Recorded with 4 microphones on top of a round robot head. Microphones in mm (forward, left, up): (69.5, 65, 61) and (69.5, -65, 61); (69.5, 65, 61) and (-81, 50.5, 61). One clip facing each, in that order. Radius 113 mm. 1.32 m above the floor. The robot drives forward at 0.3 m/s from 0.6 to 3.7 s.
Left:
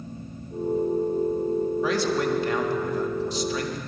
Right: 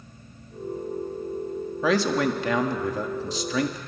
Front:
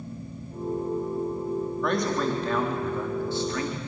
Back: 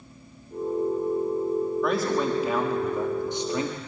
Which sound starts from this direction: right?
A man speaking, at 1.8 s.